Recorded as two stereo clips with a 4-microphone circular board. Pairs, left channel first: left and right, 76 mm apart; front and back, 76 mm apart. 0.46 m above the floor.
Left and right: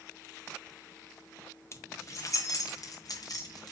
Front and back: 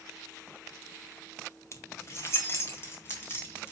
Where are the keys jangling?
45° left, 1.2 m; by 3.7 s 60° left, 3 m.